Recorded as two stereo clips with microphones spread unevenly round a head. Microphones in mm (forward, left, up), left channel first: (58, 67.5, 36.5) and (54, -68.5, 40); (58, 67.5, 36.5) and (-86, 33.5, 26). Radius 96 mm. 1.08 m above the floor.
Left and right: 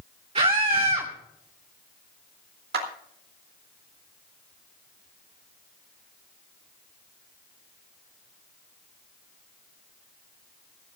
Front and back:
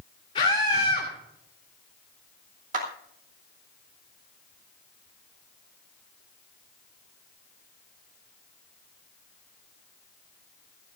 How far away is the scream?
About 2 m.